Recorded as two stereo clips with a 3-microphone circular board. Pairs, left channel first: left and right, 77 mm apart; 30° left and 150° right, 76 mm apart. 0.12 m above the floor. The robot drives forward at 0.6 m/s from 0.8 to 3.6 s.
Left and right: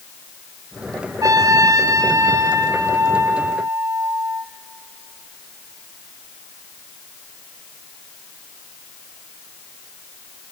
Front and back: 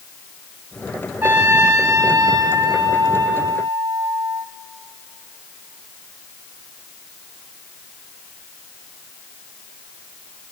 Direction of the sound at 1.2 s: 95° right.